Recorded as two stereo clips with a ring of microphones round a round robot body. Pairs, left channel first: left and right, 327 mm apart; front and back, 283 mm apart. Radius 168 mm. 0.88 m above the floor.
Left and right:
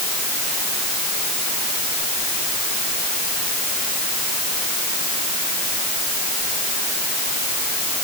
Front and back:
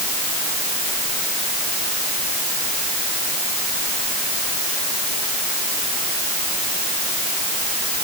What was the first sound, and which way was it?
Only background noise.